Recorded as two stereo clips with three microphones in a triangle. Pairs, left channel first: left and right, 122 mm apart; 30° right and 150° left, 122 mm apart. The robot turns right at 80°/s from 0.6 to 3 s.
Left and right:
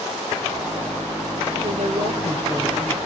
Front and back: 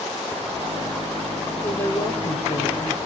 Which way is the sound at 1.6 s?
110° right.